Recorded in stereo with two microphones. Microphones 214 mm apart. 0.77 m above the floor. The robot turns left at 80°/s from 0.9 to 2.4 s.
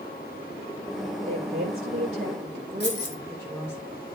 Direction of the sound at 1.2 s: 60° right.